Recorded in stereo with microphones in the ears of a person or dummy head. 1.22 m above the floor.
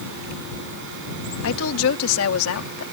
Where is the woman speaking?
65° left (ahead or behind); by 2.8 s 80° left.